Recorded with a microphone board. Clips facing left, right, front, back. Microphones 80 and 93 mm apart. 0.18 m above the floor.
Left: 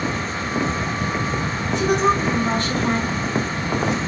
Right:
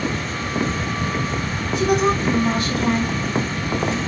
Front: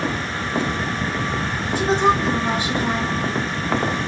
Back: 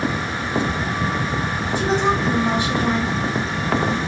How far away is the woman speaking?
About 1.2 m.